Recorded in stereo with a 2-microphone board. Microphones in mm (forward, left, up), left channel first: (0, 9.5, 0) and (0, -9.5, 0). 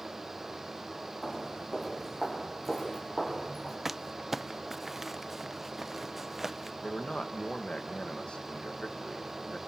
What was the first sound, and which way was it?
Footsteps, 20° left (ahead or behind).